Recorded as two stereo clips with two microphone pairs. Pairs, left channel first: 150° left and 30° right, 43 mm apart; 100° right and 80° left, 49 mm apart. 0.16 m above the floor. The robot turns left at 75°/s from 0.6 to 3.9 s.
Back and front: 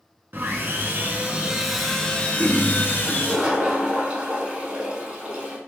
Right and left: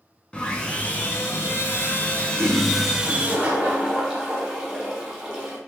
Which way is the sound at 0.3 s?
35° right.